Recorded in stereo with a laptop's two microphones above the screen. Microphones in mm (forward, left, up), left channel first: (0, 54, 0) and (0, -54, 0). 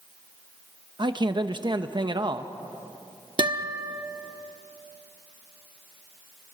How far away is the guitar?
About 0.9 m.